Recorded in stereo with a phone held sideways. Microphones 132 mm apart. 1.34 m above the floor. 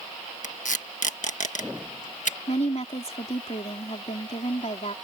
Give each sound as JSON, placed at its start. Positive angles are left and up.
{"t": 0.4, "sound": "tape being pulled", "side_deg": 70}
{"t": 2.5, "sound": "a woman speaking", "side_deg": 55}